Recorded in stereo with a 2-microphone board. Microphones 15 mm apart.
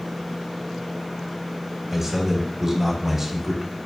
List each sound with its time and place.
1.9 s a man speaking: 15° right (ahead or behind), 0.9 m